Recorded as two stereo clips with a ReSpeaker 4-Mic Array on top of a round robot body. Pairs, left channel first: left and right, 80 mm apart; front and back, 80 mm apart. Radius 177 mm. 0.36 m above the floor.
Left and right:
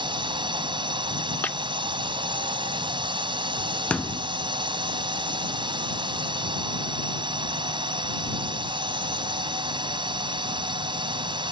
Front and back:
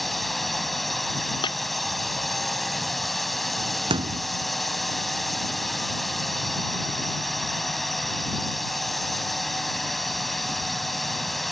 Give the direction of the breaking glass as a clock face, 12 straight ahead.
11 o'clock.